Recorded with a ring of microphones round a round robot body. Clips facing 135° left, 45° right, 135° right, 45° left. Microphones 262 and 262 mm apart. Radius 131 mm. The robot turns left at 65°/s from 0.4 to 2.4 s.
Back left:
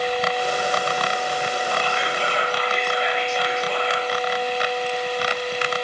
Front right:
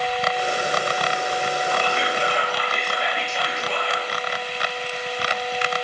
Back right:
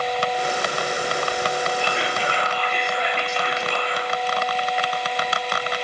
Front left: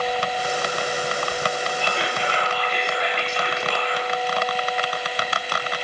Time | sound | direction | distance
1.8 | whispering | 90° right | 7.5 m